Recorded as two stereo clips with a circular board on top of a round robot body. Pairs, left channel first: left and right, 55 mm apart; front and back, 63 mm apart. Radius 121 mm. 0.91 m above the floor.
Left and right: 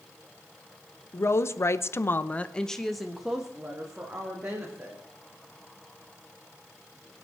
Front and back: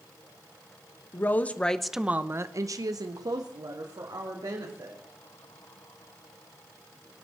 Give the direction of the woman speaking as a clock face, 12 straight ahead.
10 o'clock.